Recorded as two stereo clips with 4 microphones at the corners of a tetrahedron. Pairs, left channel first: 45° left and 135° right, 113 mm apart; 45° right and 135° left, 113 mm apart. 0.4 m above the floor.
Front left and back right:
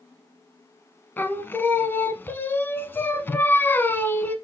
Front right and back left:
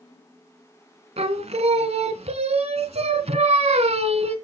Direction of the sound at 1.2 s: 115° left.